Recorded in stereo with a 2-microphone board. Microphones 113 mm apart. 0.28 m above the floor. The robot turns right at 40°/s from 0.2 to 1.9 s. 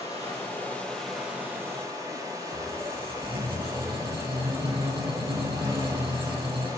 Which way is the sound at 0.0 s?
145° left.